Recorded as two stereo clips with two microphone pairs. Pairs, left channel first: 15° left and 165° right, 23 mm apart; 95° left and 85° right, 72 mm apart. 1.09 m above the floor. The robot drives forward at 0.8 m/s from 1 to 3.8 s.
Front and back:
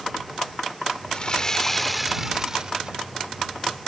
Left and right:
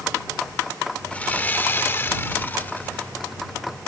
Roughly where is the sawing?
Ahead left.